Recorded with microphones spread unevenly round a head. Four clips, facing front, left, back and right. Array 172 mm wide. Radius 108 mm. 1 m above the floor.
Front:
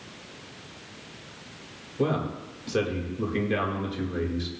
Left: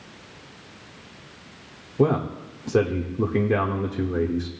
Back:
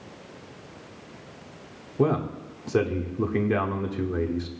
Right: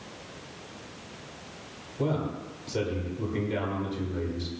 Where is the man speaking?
125° left, 1.5 m.